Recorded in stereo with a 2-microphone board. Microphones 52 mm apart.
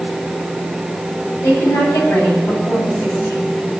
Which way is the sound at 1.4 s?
85° left.